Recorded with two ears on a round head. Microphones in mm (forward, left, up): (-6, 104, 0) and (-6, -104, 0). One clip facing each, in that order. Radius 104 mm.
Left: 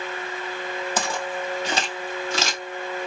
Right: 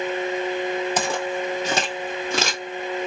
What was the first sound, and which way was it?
Footsteps, 15° right (ahead or behind).